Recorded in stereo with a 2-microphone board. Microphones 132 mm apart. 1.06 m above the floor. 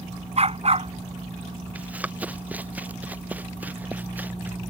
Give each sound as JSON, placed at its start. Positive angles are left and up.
{"t": 0.4, "sound": "a dog barking", "side_deg": -50}
{"t": 1.8, "sound": "running footsteps", "side_deg": -10}